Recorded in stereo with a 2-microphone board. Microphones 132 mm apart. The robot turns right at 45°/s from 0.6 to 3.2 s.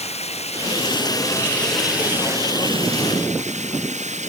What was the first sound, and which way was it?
Running water, 125° left.